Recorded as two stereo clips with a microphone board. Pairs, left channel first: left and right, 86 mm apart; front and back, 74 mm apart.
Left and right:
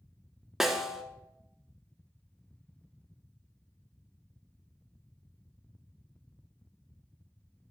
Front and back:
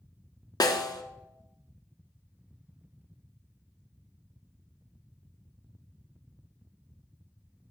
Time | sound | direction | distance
0.6 | a snare drum | 5° right | 0.7 m